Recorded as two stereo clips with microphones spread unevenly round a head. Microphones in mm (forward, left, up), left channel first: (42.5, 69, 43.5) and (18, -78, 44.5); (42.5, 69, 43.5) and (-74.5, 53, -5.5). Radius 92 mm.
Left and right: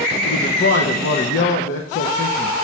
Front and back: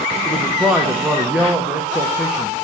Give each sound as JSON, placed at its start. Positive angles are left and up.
{"t": 0.2, "sound": "a man speaking", "azimuth_deg": 100, "distance_m": 0.8}